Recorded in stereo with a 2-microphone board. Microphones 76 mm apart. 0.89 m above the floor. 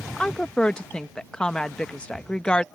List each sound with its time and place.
0.2 s a woman speaking: 15° left (ahead or behind)